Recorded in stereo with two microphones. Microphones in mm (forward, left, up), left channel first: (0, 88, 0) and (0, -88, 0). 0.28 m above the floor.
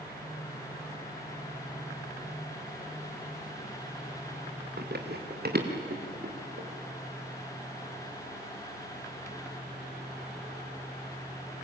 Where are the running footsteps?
65° right (ahead or behind), 3 m; by 6.7 s 55° right (ahead or behind), 4.5 m.